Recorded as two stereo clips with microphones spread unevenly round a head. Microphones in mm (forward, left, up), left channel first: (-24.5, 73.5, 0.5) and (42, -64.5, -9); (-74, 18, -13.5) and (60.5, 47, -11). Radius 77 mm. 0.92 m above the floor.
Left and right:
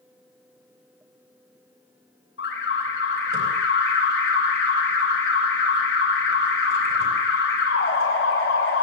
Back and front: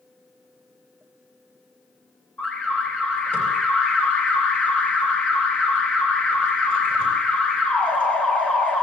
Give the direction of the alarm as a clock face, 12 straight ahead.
8 o'clock.